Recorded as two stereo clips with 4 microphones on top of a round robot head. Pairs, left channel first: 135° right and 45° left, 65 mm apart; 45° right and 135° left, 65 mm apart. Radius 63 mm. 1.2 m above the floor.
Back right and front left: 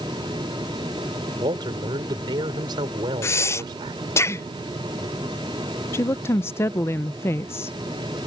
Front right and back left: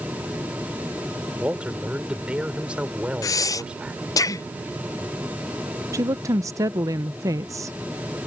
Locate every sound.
1.4 s a man speaking: 60° left
3.2 s breathing: 85° right
5.9 s a woman speaking: 175° left